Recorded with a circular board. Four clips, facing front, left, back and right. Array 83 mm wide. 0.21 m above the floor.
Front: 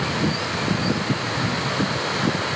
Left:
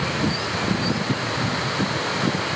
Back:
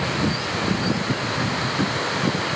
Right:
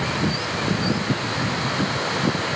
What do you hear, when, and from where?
Only background noise.